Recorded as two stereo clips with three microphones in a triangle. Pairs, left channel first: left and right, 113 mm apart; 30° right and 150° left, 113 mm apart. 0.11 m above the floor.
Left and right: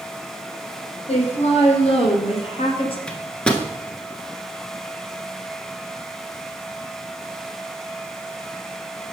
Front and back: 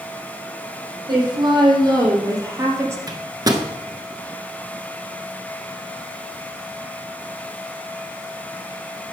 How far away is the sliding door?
No sliding door in this recording.